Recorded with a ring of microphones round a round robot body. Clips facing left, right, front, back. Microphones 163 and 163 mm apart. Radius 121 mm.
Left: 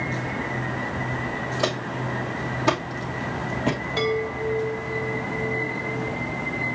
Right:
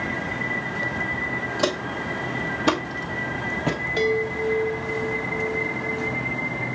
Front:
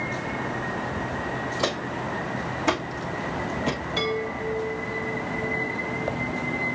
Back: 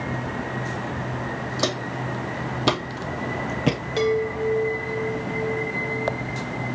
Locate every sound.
1.6 s footsteps: 155° right, 2.0 m; by 3.8 s straight behind, 0.9 m
4.0 s a chime: 155° right, 2.5 m